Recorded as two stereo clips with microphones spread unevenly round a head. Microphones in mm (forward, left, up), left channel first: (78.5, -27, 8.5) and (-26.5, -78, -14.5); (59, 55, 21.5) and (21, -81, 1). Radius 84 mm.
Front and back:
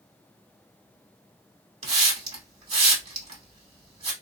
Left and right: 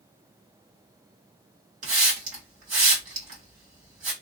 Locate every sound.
1.8 s a hiss: 135° right, 1.9 m